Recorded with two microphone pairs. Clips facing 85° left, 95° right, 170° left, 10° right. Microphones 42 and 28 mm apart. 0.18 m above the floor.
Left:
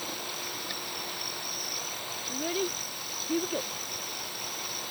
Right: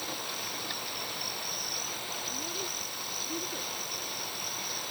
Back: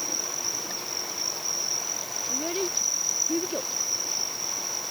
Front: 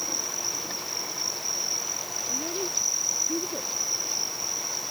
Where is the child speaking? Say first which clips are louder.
Left 6 dB, back 2 dB; 130° left.